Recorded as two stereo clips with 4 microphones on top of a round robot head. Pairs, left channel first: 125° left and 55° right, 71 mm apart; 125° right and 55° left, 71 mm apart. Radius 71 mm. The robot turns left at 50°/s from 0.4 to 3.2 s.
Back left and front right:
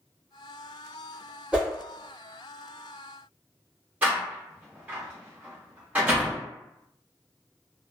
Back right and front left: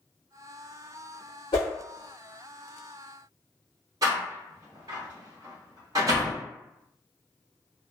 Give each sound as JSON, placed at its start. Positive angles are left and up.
{"t": 1.5, "sound": "a whoosh", "azimuth_deg": -125, "distance_m": 1.2}
{"t": 4.0, "sound": "a door slam", "azimuth_deg": 15, "distance_m": 0.5}